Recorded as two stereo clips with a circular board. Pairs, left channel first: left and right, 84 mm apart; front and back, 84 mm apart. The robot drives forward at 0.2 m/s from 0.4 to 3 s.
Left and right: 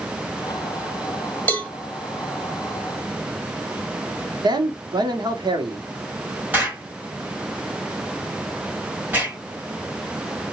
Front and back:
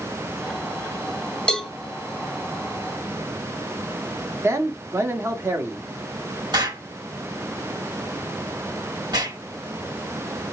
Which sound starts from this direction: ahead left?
A cowbell, at 1.5 s.